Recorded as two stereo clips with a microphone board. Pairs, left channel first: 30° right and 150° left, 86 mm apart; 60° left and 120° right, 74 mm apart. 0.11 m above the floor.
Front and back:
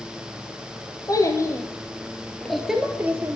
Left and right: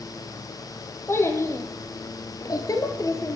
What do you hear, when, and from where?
1.1 s a child speaking: 10° left, 2.5 m; by 3.4 s 95° left, 2.0 m